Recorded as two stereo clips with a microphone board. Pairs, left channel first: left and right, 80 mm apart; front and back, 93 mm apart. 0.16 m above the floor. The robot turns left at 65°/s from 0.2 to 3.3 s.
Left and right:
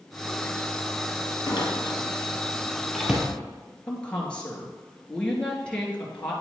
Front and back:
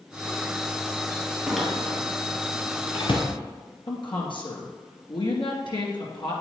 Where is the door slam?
95° left, 2 m; by 3.2 s 20° right, 2 m.